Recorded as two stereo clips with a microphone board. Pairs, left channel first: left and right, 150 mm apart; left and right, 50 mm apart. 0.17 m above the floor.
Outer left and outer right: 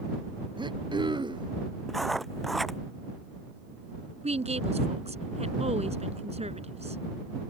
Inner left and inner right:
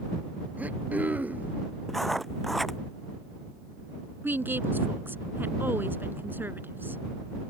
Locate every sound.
0.6 s throat clearing: 30° right (ahead or behind)
1.9 s writing: centre (ahead or behind)
4.2 s a woman speaking: 45° right (ahead or behind)